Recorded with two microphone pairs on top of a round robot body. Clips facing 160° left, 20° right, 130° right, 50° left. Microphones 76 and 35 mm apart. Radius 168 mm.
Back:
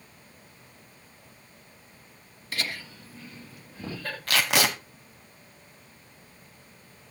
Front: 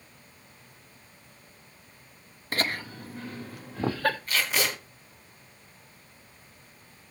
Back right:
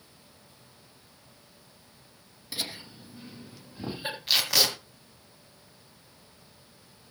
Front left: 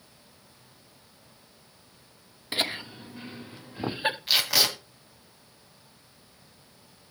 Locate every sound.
2.5 s laughter: 30° left, 1.5 m; by 4.2 s straight ahead, 2 m
4.3 s tape being pulled: 135° left, 1.5 m